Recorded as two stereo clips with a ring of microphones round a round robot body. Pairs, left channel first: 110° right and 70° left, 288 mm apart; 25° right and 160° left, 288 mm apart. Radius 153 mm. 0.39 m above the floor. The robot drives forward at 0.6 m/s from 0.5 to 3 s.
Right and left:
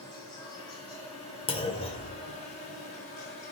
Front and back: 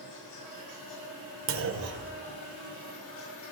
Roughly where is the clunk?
Behind.